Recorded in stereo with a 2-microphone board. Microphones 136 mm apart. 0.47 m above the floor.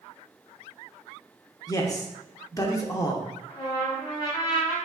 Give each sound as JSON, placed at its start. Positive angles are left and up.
{"t": 1.7, "sound": "a man speaking", "side_deg": 25, "distance_m": 0.7}
{"t": 3.5, "sound": "a trumpet", "side_deg": 30, "distance_m": 2.0}